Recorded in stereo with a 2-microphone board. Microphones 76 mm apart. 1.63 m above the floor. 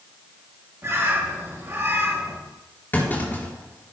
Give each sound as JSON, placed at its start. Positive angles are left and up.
{"t": 0.8, "sound": "a bird", "side_deg": -35, "distance_m": 2.0}
{"t": 2.9, "sound": "a clunk", "side_deg": 25, "distance_m": 4.0}